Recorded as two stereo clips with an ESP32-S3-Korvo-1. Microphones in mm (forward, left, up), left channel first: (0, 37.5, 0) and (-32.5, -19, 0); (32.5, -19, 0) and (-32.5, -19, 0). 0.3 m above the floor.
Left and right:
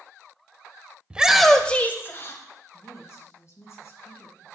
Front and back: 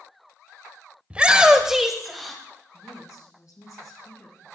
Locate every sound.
1.1 s a shout: 155° right, 1.0 m; by 2.4 s 85° left, 1.6 m
2.7 s a woman speaking: 25° left, 3 m